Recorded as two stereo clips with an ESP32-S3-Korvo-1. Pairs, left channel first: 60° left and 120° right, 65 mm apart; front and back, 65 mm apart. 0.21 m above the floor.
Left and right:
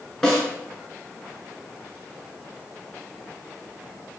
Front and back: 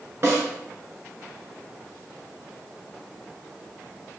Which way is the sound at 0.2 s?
140° left.